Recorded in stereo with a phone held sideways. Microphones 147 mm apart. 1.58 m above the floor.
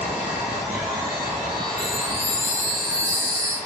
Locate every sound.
0.0 s a machine running: 5° right (ahead or behind), 2 m
1.8 s a chime: 20° right (ahead or behind), 1.1 m